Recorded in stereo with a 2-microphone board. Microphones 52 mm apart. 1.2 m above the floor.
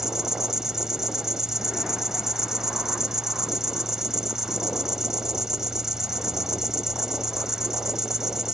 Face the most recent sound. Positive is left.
turn(degrees=-10)  # may be behind; listen again after turning